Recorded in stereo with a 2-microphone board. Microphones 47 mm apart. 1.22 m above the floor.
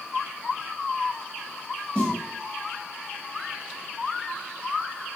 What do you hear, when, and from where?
1.9 s a snare drum: 25° left (ahead or behind), 1.7 m